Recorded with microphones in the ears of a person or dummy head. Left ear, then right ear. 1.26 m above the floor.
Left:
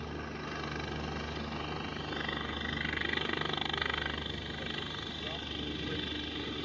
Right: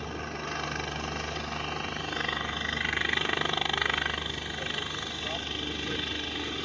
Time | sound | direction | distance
0.0 | a helicopter | 35° right (ahead or behind) | ?